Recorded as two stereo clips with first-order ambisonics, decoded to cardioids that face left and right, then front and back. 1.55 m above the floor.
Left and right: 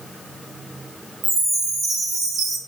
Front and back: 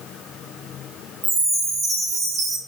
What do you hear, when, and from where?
1.2 s a chime: 125° right, 1.0 m